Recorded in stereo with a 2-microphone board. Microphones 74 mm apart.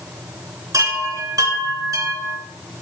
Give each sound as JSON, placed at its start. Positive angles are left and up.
{"t": 0.7, "sound": "a chime", "side_deg": -50, "distance_m": 2.5}